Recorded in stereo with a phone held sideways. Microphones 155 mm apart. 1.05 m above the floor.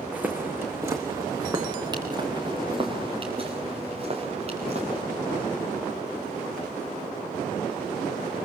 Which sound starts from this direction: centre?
Footsteps, at 0.1 s.